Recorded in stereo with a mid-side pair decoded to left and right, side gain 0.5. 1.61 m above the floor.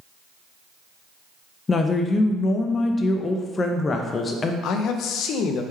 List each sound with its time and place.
1.7 s a woman speaking: 35° left, 0.5 m
4.6 s a man speaking: 70° left, 0.5 m